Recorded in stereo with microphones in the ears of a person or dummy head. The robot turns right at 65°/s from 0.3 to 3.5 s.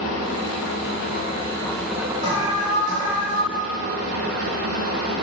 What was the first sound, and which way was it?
An engine running, 75° left.